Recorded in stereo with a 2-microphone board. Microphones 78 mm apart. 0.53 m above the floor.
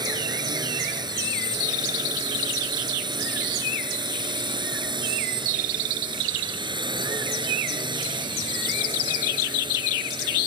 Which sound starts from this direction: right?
A drone, at 0.0 s.